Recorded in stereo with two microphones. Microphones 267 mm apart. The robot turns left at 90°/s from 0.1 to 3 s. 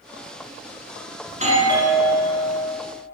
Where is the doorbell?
30° right (ahead or behind), 1.6 m; by 2.7 s 20° left (ahead or behind), 1.6 m.